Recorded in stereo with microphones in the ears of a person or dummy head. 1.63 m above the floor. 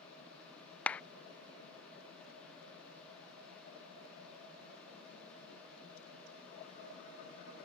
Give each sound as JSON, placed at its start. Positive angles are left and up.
{"t": 0.9, "sound": "a clap", "side_deg": 10}